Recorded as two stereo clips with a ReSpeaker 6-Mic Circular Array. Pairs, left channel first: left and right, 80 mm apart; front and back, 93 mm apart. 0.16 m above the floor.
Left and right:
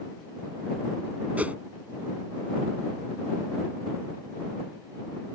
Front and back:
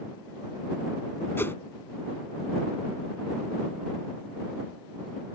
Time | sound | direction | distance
1.4 | a whoosh | 35° right | ?